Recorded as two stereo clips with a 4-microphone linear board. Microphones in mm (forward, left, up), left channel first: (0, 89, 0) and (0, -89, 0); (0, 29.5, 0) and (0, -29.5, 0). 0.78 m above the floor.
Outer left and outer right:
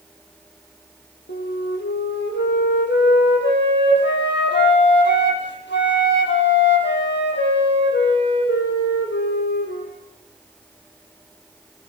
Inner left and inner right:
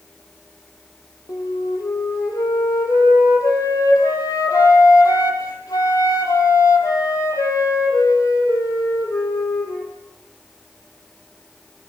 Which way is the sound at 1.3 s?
70° left (ahead or behind).